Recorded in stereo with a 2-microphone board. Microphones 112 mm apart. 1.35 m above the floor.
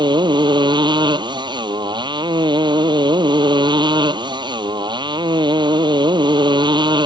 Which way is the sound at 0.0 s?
40° right (ahead or behind).